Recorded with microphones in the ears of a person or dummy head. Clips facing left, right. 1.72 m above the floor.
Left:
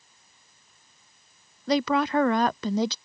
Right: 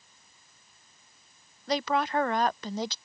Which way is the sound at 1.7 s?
60° left (ahead or behind).